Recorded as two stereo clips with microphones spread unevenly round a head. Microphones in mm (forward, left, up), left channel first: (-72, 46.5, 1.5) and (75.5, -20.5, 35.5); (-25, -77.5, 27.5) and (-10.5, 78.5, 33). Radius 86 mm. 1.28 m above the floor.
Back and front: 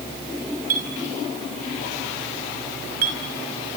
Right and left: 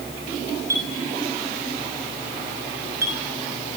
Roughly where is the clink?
Ahead.